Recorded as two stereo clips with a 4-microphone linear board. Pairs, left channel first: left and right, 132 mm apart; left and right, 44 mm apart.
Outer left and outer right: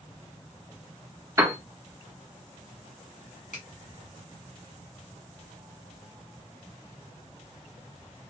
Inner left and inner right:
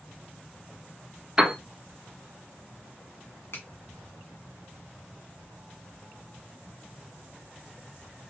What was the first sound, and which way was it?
A piano, 25° right (ahead or behind).